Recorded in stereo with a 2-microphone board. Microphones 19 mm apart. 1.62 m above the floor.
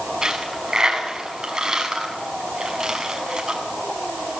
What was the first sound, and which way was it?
A dropped coin, 25° right (ahead or behind).